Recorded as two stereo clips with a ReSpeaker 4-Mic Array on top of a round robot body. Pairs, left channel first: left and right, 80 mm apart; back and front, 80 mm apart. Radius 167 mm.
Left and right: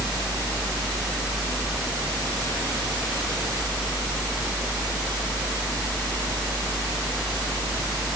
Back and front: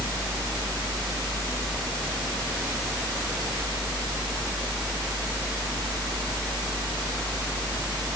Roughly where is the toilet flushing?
No toilet flushing in this recording.